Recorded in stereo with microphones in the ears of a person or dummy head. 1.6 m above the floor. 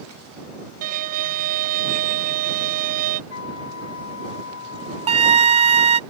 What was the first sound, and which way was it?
A violin, 40° right (ahead or behind).